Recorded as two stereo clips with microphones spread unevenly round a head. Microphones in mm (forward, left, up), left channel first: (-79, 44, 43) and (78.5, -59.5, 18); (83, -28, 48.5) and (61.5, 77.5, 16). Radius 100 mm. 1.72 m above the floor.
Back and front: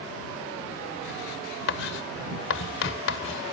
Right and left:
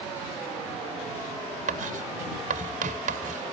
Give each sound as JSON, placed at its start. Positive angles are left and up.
{"t": 1.7, "sound": "writing", "azimuth_deg": 120}